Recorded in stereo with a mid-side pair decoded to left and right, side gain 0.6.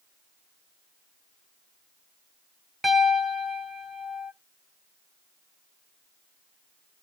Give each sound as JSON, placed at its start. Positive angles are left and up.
{"t": 2.8, "sound": "a piano", "azimuth_deg": -10, "distance_m": 1.2}